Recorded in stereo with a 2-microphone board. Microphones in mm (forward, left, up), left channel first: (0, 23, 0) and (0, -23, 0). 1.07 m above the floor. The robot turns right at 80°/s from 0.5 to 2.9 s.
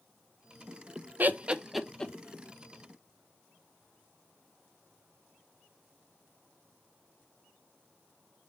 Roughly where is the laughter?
Right.